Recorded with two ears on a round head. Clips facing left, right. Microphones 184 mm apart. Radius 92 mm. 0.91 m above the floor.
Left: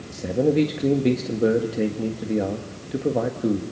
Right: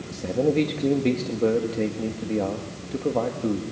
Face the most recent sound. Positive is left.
turn(degrees=15)  # may be behind; listen again after turning